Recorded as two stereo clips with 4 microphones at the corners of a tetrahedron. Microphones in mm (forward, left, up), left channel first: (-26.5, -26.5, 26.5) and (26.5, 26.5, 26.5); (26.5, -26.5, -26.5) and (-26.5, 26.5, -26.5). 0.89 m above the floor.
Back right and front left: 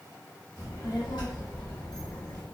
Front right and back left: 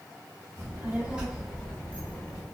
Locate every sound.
0.6 s a child speaking: 170° right, 1.4 m; by 2.4 s 85° right, 1.2 m